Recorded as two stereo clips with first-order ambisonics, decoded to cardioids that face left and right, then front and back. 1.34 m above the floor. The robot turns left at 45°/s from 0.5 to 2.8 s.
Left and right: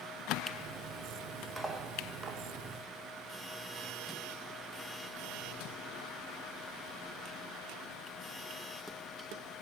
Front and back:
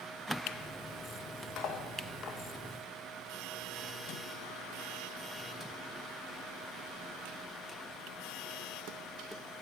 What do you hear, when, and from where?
1.6 s cutlery clinking: 5° right, 0.6 m; by 2.4 s 45° right, 0.6 m